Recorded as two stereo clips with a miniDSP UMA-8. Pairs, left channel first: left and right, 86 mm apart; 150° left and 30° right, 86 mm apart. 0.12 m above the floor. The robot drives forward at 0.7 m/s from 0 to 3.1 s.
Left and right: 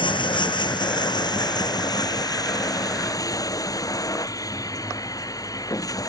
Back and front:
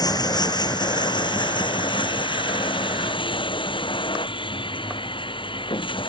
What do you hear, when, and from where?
0.0 s running water: 110° left; by 6.1 s 135° left